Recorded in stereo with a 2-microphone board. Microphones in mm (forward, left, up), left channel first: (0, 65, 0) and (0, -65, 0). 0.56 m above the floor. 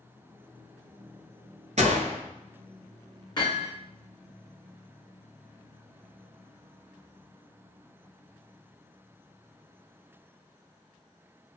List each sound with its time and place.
1.8 s a gunshot: 70° right (ahead or behind), 1.2 m
3.4 s hammering: 35° left (ahead or behind), 1.9 m